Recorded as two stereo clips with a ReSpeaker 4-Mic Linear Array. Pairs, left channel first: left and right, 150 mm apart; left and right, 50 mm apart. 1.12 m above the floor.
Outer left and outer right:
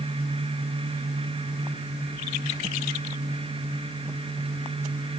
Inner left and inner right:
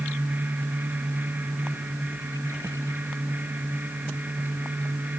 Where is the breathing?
No breathing in this recording.